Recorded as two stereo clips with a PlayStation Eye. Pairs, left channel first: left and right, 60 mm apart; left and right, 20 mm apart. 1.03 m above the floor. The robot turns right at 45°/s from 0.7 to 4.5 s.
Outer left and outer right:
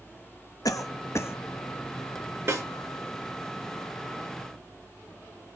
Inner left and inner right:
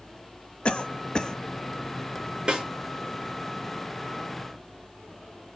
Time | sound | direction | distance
0.7 | a cough | 70° left (ahead or behind) | 0.8 m
2.5 | a snare drum | 40° right (ahead or behind) | 2.5 m